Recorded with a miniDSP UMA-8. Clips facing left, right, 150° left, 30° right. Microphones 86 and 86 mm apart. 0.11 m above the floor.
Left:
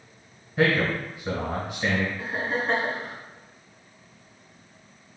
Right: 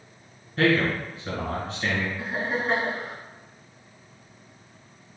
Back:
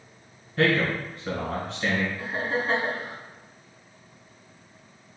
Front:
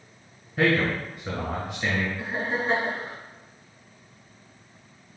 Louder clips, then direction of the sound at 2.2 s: Even, even; 20° right.